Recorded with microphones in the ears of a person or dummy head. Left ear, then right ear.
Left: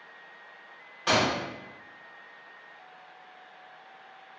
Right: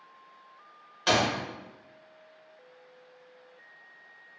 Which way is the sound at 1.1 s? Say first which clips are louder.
Even; 30° right (ahead or behind).